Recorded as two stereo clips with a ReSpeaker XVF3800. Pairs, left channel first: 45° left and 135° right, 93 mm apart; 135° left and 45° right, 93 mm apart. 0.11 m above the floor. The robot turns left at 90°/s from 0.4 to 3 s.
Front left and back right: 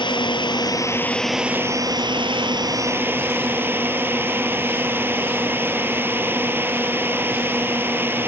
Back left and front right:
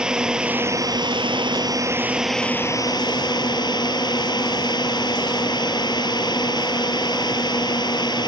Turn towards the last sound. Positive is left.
turn(degrees=160)